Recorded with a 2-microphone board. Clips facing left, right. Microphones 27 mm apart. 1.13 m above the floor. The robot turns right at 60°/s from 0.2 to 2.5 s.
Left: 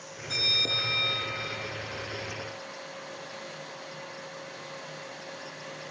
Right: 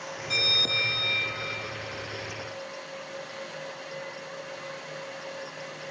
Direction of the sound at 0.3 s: 155° right.